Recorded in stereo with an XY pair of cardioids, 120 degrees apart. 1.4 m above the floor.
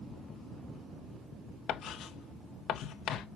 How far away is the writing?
About 0.8 m.